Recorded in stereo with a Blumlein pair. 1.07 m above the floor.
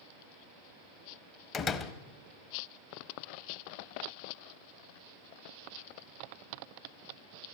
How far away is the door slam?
About 1.0 m.